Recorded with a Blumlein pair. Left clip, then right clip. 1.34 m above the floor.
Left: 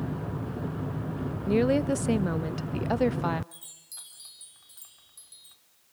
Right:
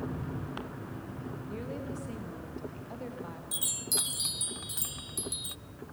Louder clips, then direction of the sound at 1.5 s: Left 18 dB; 50° left.